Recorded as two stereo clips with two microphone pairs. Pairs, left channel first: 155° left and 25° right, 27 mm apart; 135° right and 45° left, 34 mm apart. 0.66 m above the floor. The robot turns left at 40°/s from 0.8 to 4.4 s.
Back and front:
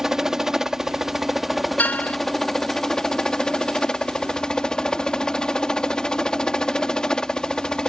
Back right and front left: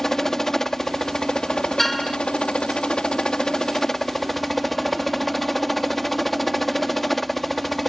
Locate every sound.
0.0 s a helicopter: 70° right; by 7.9 s 145° left
1.8 s a car horn: 140° left; by 2.2 s 125° left